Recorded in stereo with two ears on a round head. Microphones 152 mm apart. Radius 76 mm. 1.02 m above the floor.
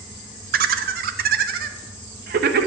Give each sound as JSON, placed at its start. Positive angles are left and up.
{"t": 0.5, "sound": "laughter", "side_deg": -55, "distance_m": 0.7}